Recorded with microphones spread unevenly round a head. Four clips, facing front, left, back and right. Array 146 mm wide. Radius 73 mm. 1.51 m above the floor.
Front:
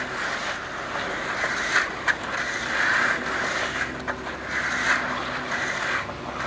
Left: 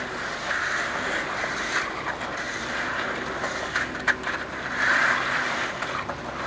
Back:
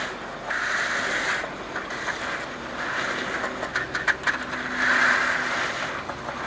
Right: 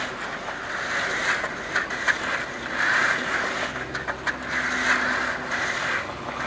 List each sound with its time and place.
Only background noise.